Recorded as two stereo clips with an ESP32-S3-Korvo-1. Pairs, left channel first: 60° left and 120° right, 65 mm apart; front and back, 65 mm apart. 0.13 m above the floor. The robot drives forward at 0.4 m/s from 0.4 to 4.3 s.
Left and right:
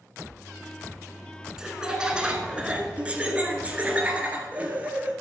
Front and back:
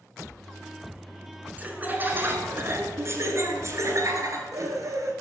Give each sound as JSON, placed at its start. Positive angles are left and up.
{"t": 1.6, "sound": "laughter", "azimuth_deg": 175, "distance_m": 1.3}